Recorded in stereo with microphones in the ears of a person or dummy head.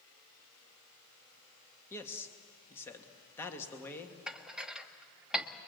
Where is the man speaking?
10° left (ahead or behind), 2 m.